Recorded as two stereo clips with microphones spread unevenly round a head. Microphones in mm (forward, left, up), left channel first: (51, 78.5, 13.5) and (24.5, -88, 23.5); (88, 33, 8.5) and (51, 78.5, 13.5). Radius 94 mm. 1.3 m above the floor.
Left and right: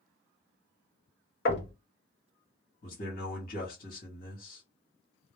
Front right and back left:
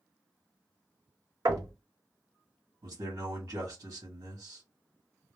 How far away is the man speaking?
About 1.2 m.